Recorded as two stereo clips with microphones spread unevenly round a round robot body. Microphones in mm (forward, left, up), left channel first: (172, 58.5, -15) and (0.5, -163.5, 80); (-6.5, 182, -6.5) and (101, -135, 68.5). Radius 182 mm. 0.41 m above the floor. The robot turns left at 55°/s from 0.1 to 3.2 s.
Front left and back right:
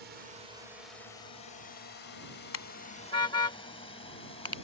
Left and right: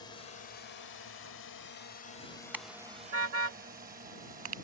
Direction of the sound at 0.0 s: 165° left.